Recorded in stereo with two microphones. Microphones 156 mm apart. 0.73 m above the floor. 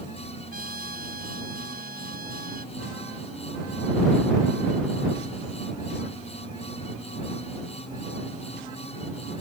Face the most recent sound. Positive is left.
turn(degrees=-70)  # may be behind; listen again after turning